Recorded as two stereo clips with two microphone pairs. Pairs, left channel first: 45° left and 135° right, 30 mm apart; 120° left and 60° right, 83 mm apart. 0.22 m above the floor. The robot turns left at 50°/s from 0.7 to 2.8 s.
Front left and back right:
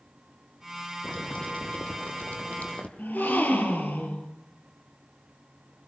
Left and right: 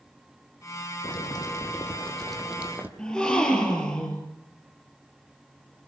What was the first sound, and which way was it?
Boiling, 95° left.